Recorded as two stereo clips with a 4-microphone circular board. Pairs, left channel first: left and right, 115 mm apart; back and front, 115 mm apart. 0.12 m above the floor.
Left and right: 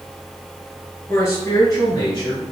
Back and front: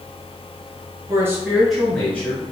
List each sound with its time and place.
1.1 s a man speaking: 35° left, 1.4 m; by 2.4 s 125° left, 1.8 m